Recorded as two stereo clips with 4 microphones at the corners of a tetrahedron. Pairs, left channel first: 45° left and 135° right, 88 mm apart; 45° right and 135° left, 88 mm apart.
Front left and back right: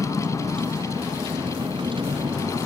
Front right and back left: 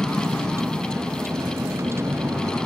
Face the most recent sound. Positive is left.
turn(degrees=-165)